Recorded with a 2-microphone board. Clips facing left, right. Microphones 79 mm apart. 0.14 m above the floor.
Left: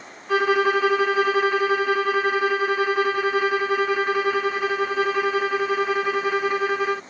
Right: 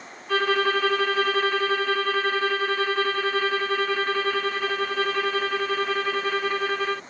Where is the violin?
10° left (ahead or behind).